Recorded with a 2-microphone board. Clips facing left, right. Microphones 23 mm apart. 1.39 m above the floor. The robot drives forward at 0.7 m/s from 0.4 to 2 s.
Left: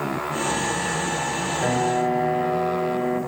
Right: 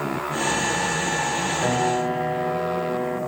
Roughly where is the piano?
Centre.